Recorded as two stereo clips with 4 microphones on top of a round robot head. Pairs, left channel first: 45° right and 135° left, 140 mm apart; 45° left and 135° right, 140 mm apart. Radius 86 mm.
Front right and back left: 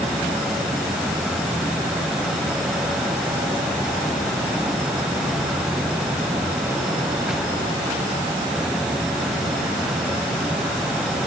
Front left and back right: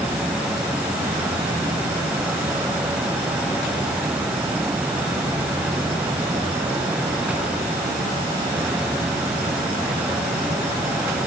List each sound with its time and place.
Only background noise.